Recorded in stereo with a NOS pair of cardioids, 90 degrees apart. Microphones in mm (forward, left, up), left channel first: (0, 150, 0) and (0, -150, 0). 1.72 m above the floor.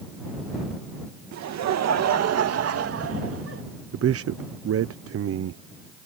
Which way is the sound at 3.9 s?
50° right.